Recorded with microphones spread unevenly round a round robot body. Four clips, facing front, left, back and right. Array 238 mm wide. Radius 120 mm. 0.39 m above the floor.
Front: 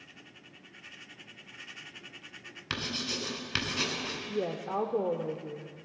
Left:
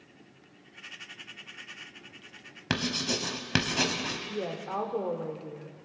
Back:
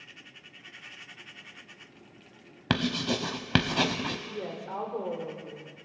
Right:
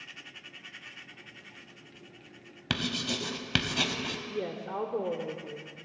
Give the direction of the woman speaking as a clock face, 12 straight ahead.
12 o'clock.